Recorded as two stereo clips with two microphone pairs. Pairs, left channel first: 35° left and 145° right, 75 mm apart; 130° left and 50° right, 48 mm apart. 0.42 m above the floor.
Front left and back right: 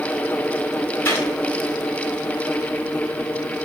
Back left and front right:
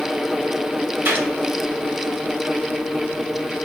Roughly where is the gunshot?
Ahead.